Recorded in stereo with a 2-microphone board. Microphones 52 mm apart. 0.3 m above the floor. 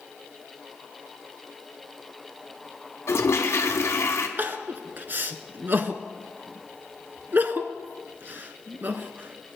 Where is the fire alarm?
No fire alarm in this recording.